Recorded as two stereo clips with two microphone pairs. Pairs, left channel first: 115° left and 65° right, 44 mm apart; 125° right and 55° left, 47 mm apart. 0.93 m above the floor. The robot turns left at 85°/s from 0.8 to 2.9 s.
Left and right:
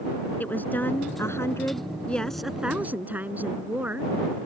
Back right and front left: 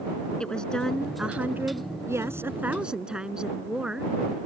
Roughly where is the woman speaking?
Behind.